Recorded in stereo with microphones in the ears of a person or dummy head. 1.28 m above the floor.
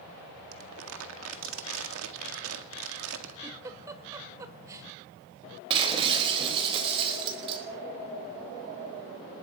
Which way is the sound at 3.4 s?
15° right (ahead or behind).